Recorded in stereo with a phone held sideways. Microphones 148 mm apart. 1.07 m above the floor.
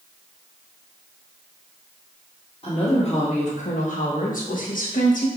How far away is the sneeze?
I don't hear a sneeze.